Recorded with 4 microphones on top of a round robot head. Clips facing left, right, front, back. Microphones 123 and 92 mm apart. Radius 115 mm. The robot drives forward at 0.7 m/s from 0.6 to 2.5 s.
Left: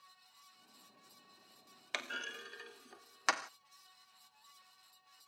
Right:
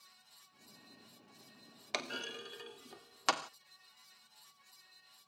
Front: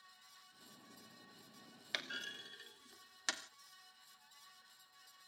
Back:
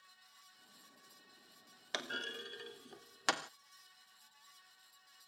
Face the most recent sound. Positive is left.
turn(degrees=-160)